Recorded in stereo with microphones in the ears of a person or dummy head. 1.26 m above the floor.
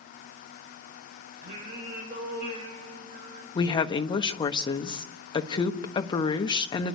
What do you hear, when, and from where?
1.4 s singing: 50° right (ahead or behind), 4 m
3.5 s a woman speaking: 20° left (ahead or behind), 1.2 m